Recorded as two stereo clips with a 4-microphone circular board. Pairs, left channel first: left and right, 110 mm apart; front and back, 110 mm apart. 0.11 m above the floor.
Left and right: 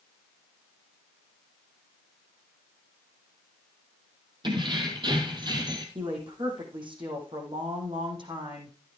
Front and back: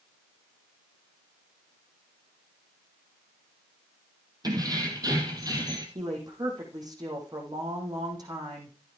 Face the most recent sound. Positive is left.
turn(degrees=-125)